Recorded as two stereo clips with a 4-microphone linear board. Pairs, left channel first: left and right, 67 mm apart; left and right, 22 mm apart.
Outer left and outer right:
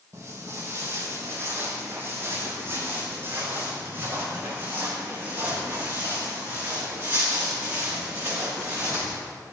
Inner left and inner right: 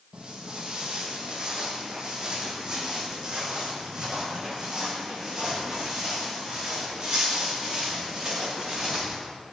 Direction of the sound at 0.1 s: 40° right (ahead or behind).